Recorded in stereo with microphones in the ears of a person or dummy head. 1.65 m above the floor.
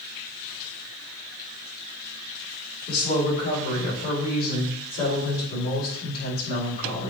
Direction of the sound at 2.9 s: 55° left (ahead or behind).